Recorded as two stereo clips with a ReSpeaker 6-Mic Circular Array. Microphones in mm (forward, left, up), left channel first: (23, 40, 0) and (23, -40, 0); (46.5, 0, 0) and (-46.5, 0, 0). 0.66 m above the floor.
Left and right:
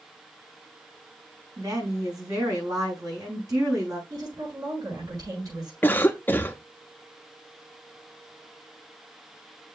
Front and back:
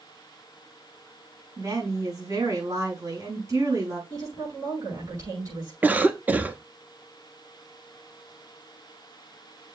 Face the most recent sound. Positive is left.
turn(degrees=125)